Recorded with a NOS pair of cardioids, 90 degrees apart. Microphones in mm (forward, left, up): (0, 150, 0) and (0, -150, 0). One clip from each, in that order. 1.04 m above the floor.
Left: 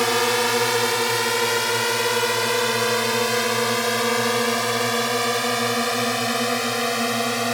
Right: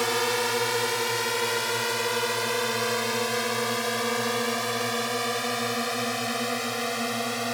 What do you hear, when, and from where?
0.0 s a drone: 40° left; by 7.5 s 45° left